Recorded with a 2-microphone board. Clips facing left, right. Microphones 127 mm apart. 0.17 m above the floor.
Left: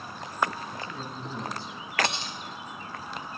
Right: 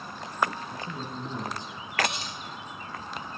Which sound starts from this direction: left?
Cutlery clinking, at 2.0 s.